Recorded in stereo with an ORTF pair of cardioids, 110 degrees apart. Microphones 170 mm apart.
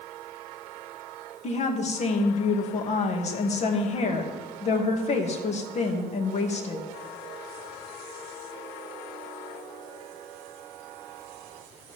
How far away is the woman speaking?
About 2 m.